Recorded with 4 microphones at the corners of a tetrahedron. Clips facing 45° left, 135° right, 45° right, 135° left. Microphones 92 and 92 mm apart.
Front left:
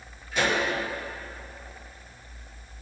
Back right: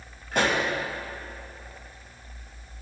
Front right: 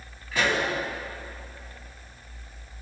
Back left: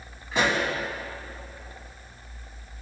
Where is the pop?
160° right, 3 m.